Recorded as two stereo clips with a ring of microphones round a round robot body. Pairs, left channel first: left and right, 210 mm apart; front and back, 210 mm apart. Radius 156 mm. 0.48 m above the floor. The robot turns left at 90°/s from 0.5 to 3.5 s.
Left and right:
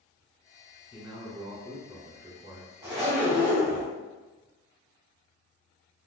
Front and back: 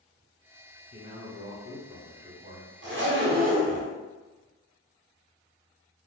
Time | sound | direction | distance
0.9 | a man speaking | 5° right | 1.9 m
2.8 | a zipper | 165° right | 0.9 m